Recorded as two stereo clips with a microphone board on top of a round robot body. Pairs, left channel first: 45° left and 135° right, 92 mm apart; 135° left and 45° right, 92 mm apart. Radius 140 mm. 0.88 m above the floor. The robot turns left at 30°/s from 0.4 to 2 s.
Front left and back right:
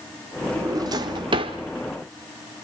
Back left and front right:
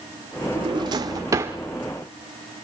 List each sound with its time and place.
0.6 s a drawer: 80° right, 0.8 m; by 1.6 s 110° right, 0.8 m